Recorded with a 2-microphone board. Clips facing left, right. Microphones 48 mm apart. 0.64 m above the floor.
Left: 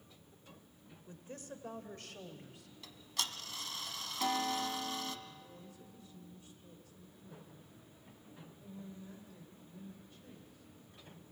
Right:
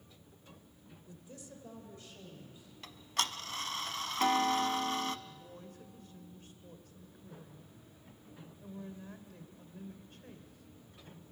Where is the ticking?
50° right (ahead or behind), 0.8 m.